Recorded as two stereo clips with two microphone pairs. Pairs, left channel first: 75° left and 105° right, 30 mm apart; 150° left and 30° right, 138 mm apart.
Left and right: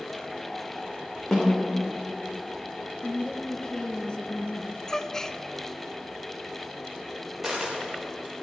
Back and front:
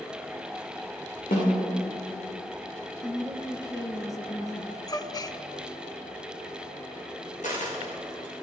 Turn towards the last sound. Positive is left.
turn(degrees=175)